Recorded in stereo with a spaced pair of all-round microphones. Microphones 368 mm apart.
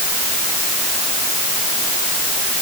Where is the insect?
I don't hear an insect.